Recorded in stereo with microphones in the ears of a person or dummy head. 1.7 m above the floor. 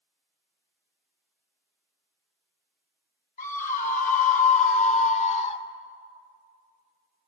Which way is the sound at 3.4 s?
45° left (ahead or behind).